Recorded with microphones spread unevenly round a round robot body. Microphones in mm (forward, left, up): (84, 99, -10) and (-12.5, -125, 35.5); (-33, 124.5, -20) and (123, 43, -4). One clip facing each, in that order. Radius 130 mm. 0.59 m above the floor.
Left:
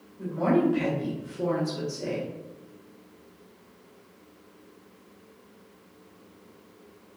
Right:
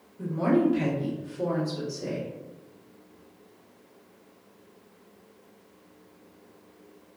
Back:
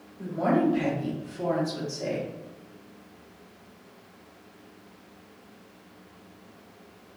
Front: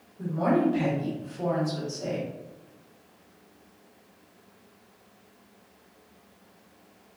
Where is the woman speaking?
75° right, 0.8 m; by 2.3 s 85° left, 1.1 m.